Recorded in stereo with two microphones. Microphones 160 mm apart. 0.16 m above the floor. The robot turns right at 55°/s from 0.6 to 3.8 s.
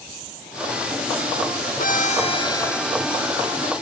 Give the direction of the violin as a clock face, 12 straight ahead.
8 o'clock.